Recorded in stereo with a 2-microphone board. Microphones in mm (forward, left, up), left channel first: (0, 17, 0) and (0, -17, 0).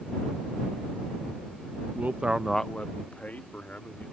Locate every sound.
1.9 s a man speaking: 65° right (ahead or behind); by 4.1 s 60° left (ahead or behind)